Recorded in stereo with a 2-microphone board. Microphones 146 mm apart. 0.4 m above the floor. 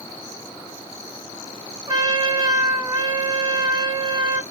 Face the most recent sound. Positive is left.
turn(degrees=-30)  # may be behind; listen again after turning